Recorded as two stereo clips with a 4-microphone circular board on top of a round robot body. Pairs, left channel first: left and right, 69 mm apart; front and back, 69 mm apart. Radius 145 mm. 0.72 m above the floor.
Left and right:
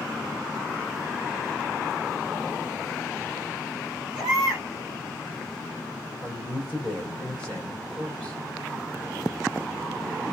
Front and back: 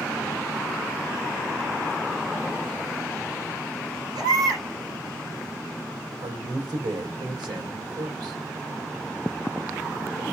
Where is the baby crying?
175° right, 3 m.